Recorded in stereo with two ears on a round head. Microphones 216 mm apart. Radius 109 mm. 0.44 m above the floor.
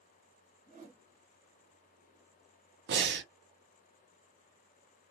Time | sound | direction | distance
0.7 | a whoosh | 30° right (ahead or behind) | 0.8 m
2.9 | breathing | 45° right (ahead or behind) | 0.8 m